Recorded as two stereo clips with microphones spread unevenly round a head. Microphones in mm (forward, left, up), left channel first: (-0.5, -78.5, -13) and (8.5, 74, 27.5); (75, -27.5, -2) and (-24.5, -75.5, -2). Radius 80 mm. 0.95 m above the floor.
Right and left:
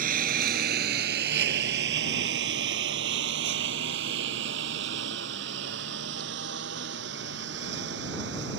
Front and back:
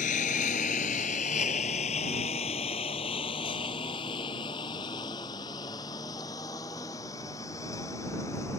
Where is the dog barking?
No dog barking in this recording.